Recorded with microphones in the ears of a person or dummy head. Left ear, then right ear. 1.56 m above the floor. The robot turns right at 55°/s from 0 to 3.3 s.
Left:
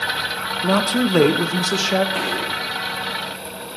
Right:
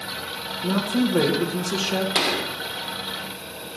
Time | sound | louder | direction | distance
0.6 | a woman speaking | left 5 dB | 50° left | 0.9 m
2.1 | a gunshot | even | 40° right (ahead or behind) | 0.7 m